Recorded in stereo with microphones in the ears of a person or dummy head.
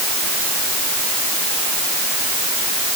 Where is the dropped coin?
I don't hear a dropped coin.